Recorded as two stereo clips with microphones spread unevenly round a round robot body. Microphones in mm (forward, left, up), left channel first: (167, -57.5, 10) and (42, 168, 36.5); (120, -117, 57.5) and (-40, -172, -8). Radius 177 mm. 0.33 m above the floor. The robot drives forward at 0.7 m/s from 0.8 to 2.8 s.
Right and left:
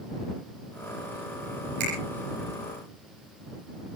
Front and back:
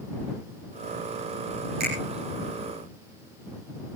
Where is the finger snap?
155° left, 10 m.